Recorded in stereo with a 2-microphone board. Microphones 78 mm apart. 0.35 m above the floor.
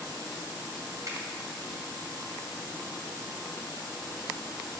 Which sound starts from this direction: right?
A finger snap, at 1.1 s.